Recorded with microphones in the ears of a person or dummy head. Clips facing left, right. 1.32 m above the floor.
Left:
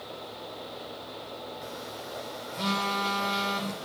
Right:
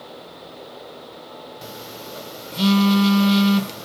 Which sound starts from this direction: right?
A phone buzzing, at 1.6 s.